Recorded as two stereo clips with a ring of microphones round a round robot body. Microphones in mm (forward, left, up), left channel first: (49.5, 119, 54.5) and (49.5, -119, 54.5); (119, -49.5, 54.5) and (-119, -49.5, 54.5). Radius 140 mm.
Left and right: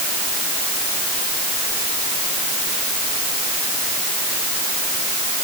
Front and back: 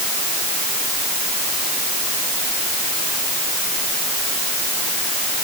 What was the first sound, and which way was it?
Only background noise.